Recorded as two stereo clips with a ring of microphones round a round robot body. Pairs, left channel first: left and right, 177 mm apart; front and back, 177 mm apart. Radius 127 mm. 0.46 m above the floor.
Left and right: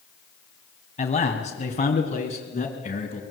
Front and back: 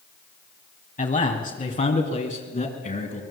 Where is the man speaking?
40° left, 3.5 m.